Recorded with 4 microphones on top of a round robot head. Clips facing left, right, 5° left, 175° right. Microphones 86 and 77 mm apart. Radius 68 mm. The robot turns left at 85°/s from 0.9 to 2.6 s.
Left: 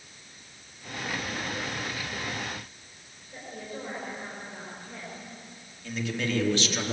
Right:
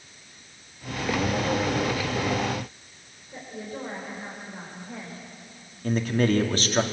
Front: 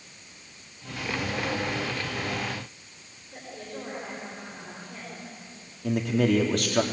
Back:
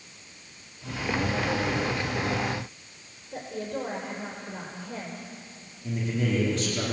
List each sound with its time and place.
3.3 s a woman speaking: 175° right, 5 m
5.8 s a man speaking: 40° right, 3 m